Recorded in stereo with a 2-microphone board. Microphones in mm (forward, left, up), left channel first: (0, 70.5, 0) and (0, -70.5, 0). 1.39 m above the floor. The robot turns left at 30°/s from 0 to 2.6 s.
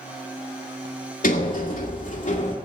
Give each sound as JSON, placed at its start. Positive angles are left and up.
{"t": 1.2, "sound": "a sliding door", "azimuth_deg": 95, "distance_m": 2.5}